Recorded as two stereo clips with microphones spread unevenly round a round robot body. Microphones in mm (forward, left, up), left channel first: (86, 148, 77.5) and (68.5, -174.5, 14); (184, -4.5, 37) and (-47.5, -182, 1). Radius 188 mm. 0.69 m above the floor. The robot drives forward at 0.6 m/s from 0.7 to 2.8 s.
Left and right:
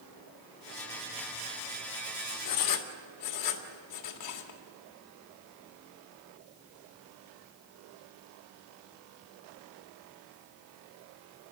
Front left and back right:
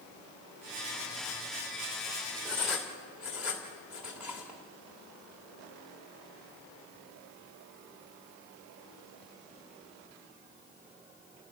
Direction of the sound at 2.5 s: 125° left.